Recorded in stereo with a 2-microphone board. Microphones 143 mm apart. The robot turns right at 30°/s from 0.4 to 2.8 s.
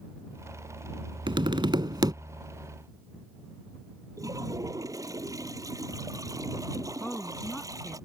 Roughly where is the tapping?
Right.